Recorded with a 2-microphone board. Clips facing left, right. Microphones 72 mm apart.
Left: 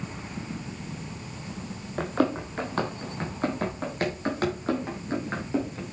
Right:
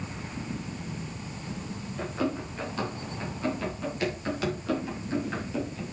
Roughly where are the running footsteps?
Left.